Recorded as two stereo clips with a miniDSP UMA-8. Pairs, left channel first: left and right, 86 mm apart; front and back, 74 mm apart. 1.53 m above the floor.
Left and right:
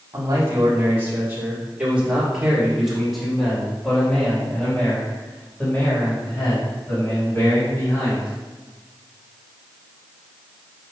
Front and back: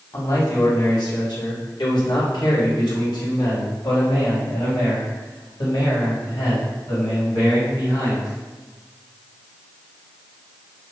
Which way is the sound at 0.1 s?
40° right.